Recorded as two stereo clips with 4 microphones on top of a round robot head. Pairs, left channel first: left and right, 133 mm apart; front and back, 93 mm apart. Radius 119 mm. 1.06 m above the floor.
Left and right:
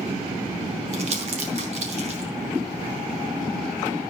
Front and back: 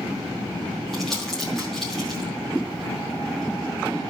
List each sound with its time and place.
0.9 s crumpling: 90° right, 0.7 m